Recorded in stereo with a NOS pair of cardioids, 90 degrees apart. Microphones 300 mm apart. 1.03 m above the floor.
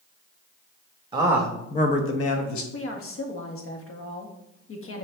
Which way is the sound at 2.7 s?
45° left.